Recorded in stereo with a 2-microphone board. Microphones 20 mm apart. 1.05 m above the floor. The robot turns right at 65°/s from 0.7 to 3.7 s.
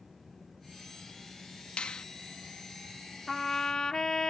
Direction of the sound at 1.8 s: 65° left (ahead or behind).